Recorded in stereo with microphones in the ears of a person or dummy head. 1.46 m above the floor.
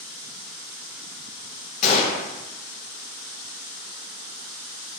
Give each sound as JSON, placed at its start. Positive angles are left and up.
{"t": 1.8, "sound": "a gunshot", "side_deg": 50, "distance_m": 1.7}